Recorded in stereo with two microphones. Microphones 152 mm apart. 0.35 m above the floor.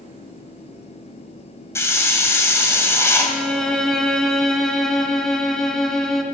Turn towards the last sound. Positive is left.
turn(degrees=5)  # may be behind; listen again after turning